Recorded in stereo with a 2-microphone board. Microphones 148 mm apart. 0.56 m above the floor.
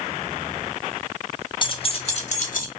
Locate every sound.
1.6 s keys jangling: 35° left (ahead or behind), 0.9 m; by 2.7 s 65° left (ahead or behind), 0.8 m